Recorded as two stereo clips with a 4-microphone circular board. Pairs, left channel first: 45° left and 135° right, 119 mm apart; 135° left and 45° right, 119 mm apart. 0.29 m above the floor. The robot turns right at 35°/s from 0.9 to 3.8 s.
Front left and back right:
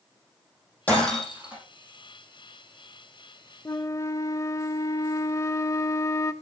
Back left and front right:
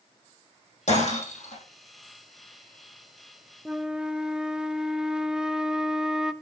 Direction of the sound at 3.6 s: 30° left.